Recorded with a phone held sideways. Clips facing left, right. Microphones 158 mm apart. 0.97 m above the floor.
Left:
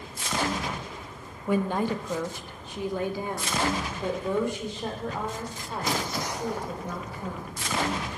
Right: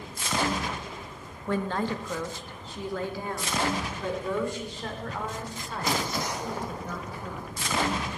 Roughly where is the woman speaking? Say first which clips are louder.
Left 3 dB; centre.